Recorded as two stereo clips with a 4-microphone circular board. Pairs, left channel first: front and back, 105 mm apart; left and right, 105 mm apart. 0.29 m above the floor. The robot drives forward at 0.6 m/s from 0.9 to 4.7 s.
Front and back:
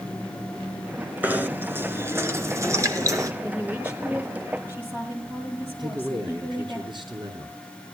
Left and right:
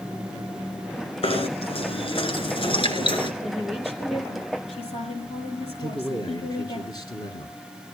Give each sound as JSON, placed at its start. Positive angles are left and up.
{"t": 1.2, "sound": "knocking", "azimuth_deg": 105, "distance_m": 3.5}
{"t": 3.4, "sound": "a woman speaking", "azimuth_deg": 105, "distance_m": 8.0}
{"t": 5.8, "sound": "a man speaking", "azimuth_deg": 140, "distance_m": 4.5}